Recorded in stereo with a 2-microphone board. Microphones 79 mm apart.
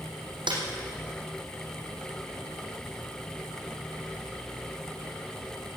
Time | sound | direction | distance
0.5 | a snare drum | 80° right | 4.5 m